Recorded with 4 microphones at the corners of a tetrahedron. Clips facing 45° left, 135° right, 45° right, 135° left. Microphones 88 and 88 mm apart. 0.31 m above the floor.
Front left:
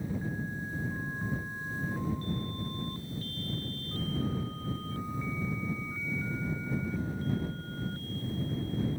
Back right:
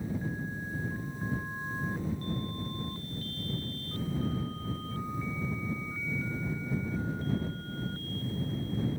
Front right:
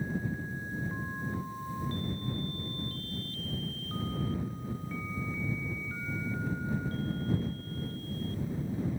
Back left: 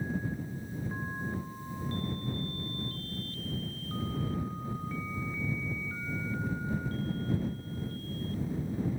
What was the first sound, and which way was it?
Only background noise.